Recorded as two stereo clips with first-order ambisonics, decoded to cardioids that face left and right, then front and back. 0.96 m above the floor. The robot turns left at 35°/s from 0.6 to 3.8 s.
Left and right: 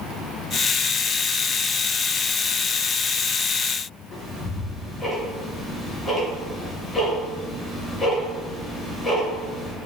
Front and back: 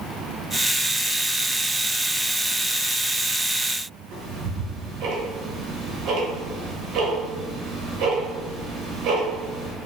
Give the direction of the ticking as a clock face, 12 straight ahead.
7 o'clock.